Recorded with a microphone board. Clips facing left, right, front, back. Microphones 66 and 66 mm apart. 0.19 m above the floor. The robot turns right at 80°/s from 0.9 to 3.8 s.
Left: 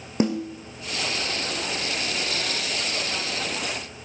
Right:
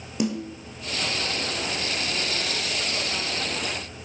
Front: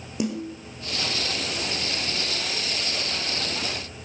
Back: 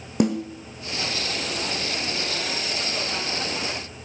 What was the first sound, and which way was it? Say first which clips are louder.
A snare drum: left 3 dB, back 6 dB; 145° left.